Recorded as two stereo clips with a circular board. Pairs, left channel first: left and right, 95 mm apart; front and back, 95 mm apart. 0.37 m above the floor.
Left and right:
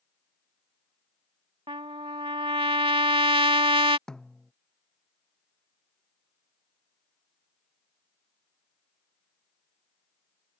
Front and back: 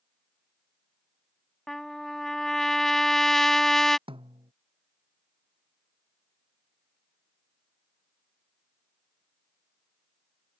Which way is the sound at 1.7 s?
85° right.